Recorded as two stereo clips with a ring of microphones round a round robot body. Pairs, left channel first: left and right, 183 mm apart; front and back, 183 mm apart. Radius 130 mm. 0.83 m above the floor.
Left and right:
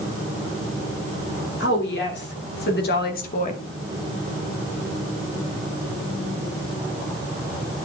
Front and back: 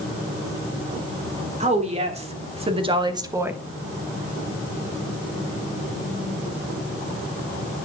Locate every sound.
1.6 s a woman speaking: 130° left, 3.5 m; by 3.6 s 100° left, 1.1 m